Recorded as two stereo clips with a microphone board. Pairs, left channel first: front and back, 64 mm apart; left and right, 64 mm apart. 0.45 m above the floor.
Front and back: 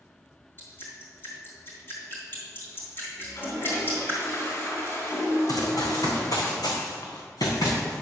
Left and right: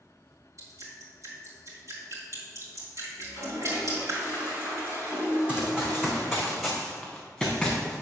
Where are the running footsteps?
20° right, 2.0 m; by 7.9 s straight ahead, 3 m.